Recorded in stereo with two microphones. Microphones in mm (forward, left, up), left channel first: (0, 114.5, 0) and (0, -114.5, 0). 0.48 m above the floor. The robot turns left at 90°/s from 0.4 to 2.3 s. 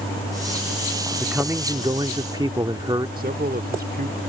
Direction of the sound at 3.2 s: 40° right (ahead or behind).